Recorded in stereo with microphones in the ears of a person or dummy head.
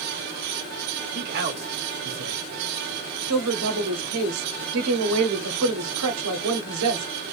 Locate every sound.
1.1 s a man speaking: 50° right (ahead or behind), 1.1 m; by 3.2 s 10° left (ahead or behind), 1.2 m
3.3 s a woman speaking: 85° right, 0.9 m